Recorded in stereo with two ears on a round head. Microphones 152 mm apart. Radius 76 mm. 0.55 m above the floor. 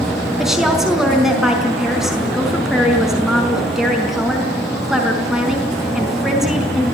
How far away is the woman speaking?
About 5 m.